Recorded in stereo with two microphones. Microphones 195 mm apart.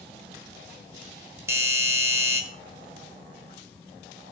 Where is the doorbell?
15° right (ahead or behind), 1.3 m.